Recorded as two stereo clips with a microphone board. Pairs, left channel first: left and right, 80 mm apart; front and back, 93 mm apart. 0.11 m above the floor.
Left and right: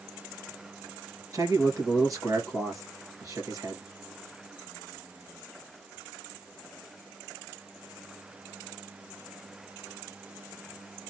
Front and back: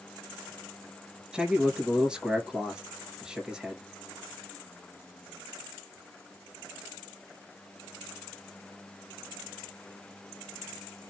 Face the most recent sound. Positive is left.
turn(degrees=-100)